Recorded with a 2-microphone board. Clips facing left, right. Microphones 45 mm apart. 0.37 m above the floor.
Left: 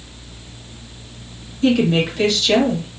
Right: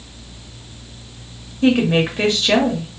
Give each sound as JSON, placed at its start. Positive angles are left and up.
{"t": 1.6, "sound": "a woman speaking", "side_deg": -30, "distance_m": 1.1}